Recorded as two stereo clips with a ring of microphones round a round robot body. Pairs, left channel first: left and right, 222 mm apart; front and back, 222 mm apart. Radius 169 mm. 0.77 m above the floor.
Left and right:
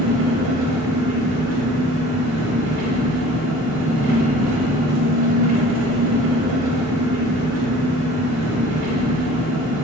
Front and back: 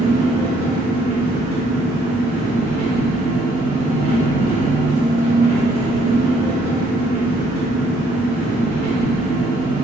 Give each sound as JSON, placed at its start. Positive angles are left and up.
{"t": 0.0, "sound": "an engine running", "azimuth_deg": -110, "distance_m": 0.9}